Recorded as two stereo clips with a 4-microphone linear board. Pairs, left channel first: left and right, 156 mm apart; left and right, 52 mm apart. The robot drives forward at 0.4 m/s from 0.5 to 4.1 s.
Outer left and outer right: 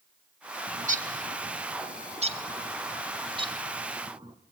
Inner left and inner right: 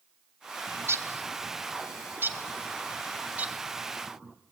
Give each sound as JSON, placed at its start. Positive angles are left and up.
{"t": 0.7, "sound": "a bird", "side_deg": -60, "distance_m": 1.0}